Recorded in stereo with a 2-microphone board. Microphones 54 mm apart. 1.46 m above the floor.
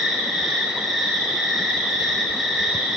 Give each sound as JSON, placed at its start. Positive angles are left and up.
{"t": 0.0, "sound": "an insect", "side_deg": 0, "distance_m": 1.7}